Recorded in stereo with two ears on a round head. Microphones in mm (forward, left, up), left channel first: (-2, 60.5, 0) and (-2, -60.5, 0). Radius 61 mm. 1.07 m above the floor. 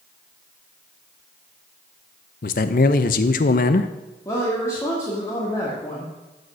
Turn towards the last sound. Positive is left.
turn(degrees=20)  # may be behind; listen again after turning